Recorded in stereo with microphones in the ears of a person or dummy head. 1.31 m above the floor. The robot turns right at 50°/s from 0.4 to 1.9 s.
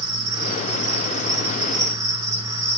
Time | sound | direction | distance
0.0 | an insect | 90° right | 3 m